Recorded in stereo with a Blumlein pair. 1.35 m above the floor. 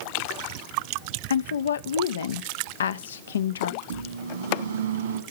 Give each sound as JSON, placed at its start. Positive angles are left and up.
{"t": 1.3, "sound": "a woman speaking", "azimuth_deg": 65, "distance_m": 0.5}
{"t": 3.8, "sound": "a microwave", "azimuth_deg": -65, "distance_m": 1.3}